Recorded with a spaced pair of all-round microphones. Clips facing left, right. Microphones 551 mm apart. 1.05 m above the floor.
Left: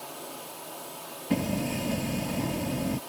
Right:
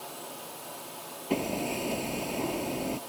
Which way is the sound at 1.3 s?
35° left (ahead or behind).